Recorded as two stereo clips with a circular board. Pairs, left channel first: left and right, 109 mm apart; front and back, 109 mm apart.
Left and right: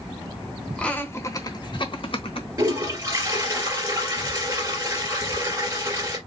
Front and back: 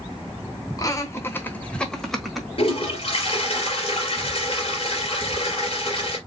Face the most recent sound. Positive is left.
turn(degrees=-30)